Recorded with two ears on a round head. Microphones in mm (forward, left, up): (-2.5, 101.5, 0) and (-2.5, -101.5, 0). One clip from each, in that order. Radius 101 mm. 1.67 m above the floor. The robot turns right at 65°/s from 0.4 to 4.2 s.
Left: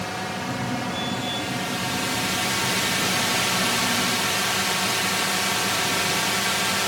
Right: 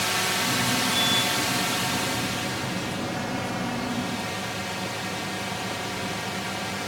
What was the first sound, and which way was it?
A drone, 110° right.